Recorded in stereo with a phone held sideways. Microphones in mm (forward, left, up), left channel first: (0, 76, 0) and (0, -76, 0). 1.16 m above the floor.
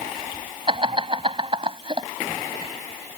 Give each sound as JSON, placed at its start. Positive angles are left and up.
{"t": 0.7, "sound": "laughter", "side_deg": -35}